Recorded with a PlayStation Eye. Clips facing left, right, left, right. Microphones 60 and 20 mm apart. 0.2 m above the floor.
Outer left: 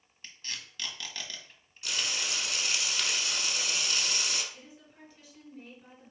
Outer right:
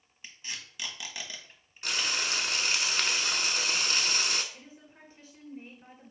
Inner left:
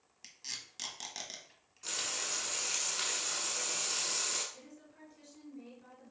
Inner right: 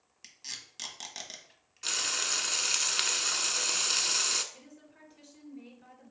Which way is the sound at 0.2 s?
10° right (ahead or behind).